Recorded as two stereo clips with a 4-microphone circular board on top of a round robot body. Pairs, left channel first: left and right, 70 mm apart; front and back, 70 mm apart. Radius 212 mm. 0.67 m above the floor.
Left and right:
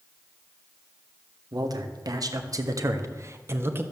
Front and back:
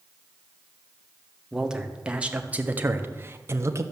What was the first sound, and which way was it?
A man speaking, 100° right.